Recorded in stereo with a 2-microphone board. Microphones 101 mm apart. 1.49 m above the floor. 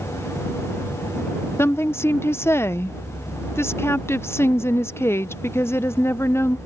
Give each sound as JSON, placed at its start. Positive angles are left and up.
{"t": 1.6, "sound": "a woman speaking", "side_deg": 25}